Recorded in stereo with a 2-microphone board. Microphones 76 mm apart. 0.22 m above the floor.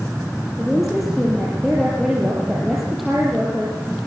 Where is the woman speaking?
Centre (ahead or behind), 5.5 m.